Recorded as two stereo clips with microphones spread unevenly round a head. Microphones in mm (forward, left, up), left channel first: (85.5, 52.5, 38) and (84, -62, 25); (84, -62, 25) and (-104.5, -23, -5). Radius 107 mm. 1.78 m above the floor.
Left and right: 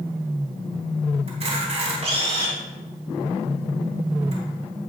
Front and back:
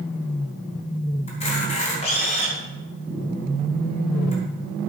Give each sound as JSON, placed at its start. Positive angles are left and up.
{"t": 1.3, "sound": "a camera shutter", "azimuth_deg": -65, "distance_m": 4.0}